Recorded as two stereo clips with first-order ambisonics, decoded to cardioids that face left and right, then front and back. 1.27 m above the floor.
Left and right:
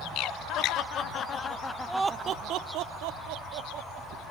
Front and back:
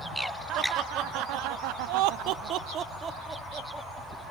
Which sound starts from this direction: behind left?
Laughter, at 0.5 s.